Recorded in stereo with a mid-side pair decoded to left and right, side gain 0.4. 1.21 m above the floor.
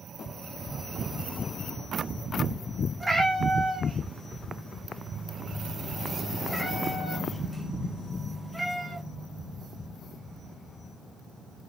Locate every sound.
3.0 s a cat meowing: 20° right, 1.3 m